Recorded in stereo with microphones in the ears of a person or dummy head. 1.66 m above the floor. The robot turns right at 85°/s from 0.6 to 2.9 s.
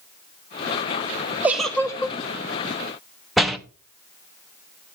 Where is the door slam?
Centre (ahead or behind), 0.7 m.